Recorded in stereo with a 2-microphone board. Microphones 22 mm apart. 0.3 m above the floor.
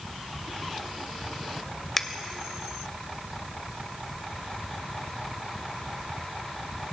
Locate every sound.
2.0 s a finger snap: 15° left (ahead or behind), 0.7 m